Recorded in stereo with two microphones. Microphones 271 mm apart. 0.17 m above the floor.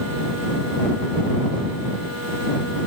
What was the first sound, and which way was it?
Only background noise.